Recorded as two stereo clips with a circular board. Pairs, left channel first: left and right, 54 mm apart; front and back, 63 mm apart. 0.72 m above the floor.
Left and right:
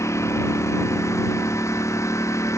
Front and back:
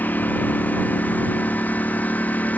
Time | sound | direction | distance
0.0 | a lawn mower | 60° left | ?